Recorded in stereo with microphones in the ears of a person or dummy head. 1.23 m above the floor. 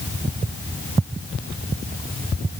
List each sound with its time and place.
Only background noise.